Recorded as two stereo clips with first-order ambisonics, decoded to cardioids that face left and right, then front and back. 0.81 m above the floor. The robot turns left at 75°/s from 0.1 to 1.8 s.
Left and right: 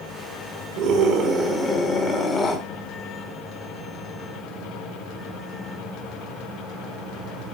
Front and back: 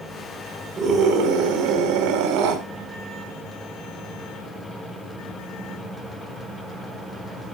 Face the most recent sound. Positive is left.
turn(degrees=160)